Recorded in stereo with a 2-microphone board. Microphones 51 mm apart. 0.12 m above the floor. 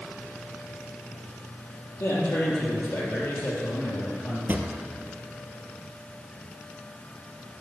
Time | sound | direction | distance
2.0 | a man speaking | 60° left (ahead or behind) | 3.5 m
4.5 | a drawer | 35° right (ahead or behind) | 0.9 m